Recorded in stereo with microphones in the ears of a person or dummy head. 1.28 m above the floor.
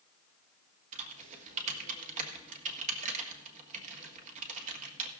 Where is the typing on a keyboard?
40° right (ahead or behind), 1.6 m.